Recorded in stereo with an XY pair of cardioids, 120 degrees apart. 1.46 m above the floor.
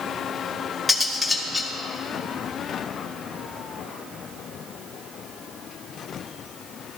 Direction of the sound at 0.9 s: 5° left.